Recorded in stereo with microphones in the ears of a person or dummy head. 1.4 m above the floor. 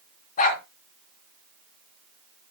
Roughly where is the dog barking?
Left.